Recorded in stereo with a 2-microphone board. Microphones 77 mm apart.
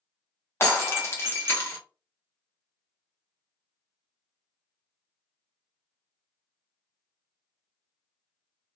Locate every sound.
0.6 s breaking glass: 30° left (ahead or behind), 1.0 m